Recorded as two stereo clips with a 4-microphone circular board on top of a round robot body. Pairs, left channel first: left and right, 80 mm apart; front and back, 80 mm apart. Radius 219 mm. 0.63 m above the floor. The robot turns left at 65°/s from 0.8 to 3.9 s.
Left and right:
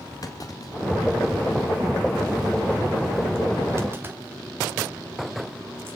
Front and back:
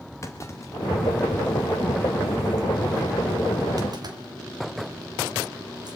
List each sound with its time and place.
0.2 s a clunk: 50° left, 2 m; by 6.0 s 150° right, 2 m